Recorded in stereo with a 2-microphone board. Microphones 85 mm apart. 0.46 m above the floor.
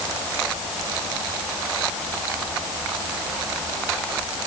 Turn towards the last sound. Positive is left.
No sound to turn to.